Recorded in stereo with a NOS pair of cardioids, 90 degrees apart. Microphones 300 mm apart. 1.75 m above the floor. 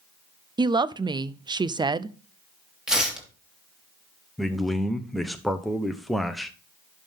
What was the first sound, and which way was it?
A woman speaking, 15° right.